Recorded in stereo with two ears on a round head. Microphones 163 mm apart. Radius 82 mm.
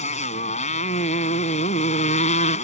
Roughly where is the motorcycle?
Left.